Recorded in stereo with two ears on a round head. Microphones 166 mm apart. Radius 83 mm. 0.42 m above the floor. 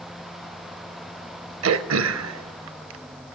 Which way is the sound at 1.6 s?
80° right.